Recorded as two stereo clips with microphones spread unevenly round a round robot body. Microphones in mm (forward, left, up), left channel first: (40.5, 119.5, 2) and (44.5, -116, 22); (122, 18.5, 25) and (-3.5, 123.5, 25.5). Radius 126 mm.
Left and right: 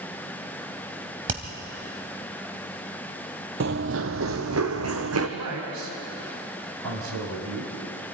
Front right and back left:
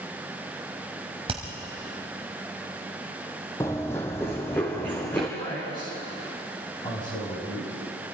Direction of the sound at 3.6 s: 115° right.